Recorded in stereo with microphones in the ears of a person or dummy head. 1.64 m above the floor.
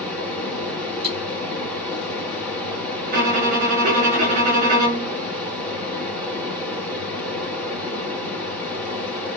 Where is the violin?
50° right (ahead or behind), 2 m.